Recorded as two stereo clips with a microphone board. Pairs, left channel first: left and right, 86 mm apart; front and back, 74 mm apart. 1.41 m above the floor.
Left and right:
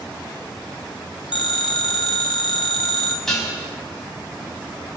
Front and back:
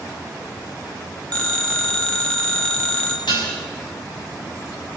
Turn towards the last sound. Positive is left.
turn(degrees=5)